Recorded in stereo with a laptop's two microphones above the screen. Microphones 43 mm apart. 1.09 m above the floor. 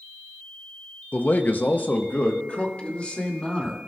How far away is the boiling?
I don't hear boiling.